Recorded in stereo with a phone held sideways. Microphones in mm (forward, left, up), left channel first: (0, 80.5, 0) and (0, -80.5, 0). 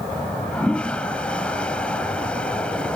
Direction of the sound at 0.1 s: 5° left (ahead or behind).